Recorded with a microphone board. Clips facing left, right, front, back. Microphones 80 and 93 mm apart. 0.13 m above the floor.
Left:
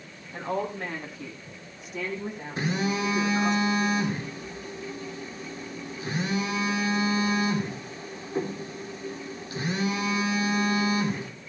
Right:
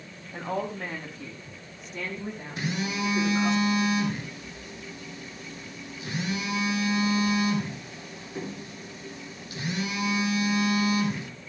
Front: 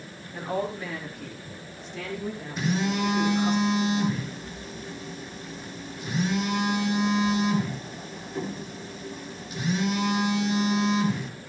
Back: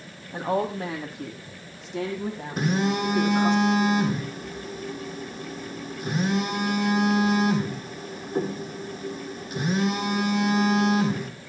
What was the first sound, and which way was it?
A woman speaking, 175° right.